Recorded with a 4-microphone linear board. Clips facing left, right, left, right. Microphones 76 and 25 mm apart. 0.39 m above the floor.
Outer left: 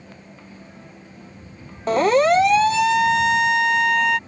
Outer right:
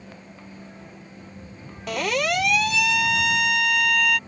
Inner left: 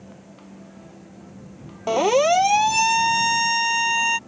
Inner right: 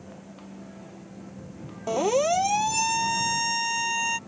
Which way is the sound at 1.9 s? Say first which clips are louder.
Outer left 9 dB, inner left 5 dB; 35° left (ahead or behind).